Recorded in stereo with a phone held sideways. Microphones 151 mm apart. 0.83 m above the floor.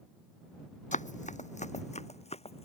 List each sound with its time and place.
0.9 s running footsteps: 55° left (ahead or behind); by 2.7 s 45° left (ahead or behind)